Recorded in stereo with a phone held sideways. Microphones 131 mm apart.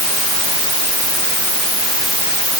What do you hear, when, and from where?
Only background noise.